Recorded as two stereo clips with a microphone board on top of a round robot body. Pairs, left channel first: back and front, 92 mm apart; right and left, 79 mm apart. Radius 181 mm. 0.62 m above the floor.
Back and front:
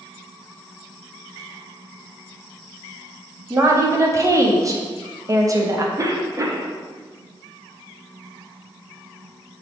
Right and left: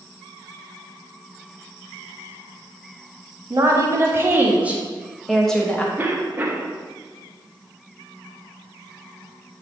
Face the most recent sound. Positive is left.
turn(degrees=35)